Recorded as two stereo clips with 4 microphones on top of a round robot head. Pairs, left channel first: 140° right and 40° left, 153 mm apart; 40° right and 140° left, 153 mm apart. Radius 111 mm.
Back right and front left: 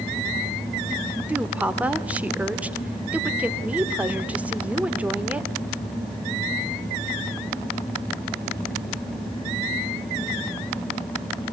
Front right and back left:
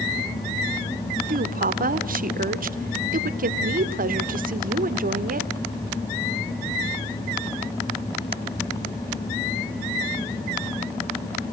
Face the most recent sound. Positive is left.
turn(degrees=120)